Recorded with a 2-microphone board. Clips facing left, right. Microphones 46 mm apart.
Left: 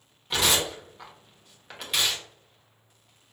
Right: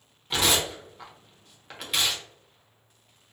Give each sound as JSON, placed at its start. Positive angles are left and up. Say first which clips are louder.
{"t": 0.3, "sound": "tearing paper", "louder": "even", "side_deg": 0, "distance_m": 1.1}